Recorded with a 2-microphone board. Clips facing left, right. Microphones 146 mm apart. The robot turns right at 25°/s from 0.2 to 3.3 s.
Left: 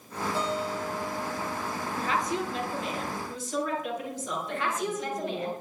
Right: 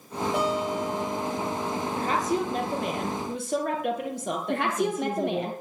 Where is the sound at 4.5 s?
65° right (ahead or behind), 3 m.